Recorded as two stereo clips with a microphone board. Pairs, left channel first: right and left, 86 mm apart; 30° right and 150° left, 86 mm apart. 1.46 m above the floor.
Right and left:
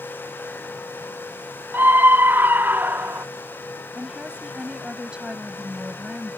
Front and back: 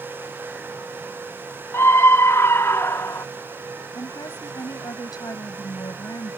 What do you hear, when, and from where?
1.7 s a scream: 25° left
4.0 s a woman speaking: 10° left